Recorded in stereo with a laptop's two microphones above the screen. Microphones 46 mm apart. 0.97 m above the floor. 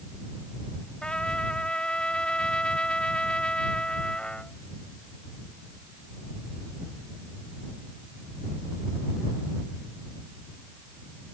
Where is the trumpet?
20° left (ahead or behind).